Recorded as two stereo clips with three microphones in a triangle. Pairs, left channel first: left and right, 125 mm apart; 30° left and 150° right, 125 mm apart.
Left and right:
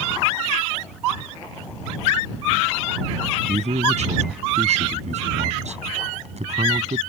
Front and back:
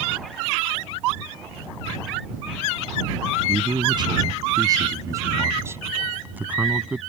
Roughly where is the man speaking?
Right.